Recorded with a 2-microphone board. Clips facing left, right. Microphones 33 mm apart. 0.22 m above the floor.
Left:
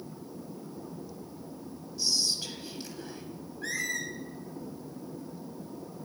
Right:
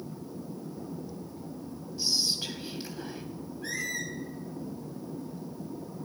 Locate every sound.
2.0 s whispering: 20° right (ahead or behind), 1.3 m
3.6 s a squeak: 70° left (ahead or behind), 2.5 m